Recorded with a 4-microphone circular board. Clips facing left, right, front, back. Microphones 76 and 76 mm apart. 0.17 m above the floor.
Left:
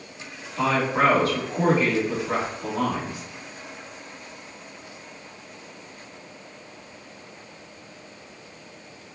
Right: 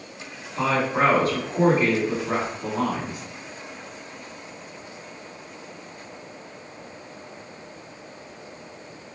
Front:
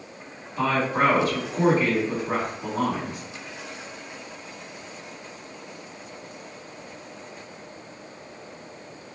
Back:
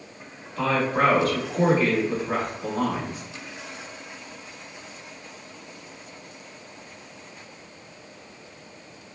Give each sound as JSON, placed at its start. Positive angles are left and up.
{"t": 0.6, "sound": "a woman speaking", "azimuth_deg": -65, "distance_m": 1.4}